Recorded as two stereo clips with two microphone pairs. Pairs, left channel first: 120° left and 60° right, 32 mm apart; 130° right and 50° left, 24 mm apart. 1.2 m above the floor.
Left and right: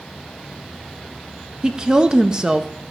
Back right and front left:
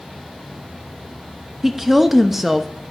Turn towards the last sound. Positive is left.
turn(degrees=-20)